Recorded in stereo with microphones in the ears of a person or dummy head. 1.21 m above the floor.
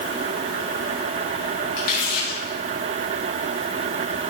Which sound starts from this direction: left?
Crumpling, at 1.8 s.